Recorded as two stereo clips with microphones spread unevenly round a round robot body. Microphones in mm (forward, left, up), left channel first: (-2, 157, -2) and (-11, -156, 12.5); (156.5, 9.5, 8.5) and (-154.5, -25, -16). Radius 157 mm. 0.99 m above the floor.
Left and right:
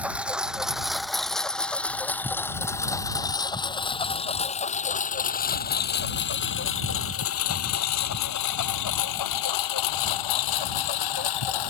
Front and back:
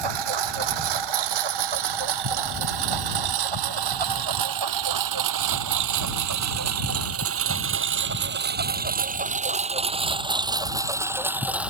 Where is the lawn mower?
Straight behind; by 11.7 s 100° left.